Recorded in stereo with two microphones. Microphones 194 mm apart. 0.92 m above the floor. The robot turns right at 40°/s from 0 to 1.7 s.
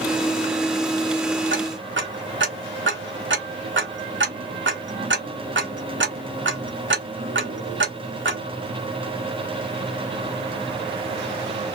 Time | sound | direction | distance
1.5 | ticking | 80° right | 1.3 m